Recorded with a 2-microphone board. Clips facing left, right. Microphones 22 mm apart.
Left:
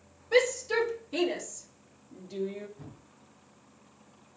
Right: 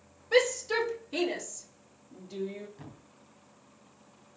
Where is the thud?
65° right (ahead or behind), 2.5 m.